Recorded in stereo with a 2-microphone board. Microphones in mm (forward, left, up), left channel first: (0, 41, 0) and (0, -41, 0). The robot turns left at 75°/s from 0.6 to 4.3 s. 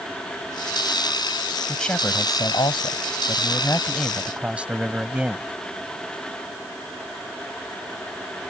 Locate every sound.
1.7 s a man speaking: straight behind; by 5.5 s 15° right